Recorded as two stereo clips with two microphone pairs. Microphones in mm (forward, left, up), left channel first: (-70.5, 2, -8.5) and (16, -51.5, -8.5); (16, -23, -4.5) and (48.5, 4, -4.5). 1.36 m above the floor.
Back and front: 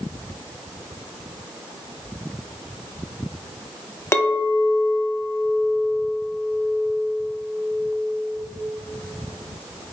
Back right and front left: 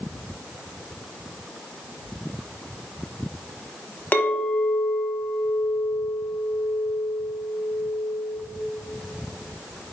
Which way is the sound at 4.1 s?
155° right.